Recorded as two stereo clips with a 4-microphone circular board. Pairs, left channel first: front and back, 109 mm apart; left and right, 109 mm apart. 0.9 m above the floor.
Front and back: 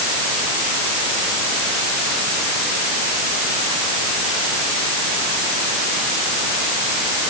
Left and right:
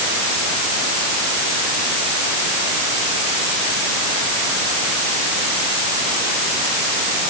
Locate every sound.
Only background noise.